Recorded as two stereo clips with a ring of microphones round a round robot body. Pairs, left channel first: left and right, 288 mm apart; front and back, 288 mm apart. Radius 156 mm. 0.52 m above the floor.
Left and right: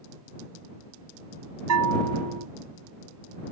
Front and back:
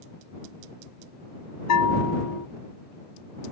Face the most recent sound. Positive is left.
turn(degrees=-45)